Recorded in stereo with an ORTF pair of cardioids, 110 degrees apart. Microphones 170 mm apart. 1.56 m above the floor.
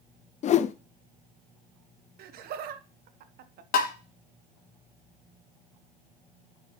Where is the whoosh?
45° left, 0.5 m.